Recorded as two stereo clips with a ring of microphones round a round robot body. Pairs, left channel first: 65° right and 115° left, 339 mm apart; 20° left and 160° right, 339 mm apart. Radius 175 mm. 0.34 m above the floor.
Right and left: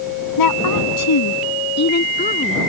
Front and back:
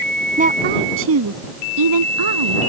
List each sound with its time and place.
0.4 s a woman speaking: 90° right; by 2.6 s 140° right